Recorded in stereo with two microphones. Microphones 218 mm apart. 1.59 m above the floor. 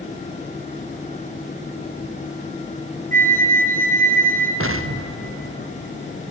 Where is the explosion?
75° right (ahead or behind), 0.6 m.